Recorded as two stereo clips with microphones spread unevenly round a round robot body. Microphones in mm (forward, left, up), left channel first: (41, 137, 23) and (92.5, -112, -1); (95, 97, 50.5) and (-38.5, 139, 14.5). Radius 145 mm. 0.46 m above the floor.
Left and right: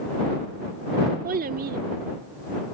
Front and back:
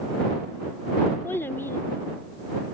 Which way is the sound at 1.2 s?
105° right.